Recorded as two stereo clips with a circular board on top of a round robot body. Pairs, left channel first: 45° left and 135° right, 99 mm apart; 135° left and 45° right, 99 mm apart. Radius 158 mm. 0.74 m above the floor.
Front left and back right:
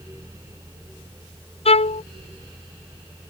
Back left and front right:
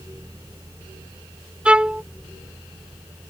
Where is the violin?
35° left.